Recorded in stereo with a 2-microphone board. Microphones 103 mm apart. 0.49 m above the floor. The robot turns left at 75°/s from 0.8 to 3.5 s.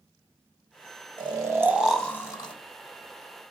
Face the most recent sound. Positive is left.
turn(degrees=60)